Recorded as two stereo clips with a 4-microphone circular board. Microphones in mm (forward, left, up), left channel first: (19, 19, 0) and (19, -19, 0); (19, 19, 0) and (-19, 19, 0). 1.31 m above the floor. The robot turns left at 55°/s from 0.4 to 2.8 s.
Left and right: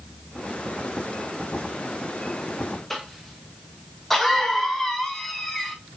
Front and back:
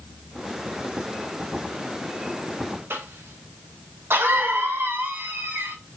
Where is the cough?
170° left, 1.6 m.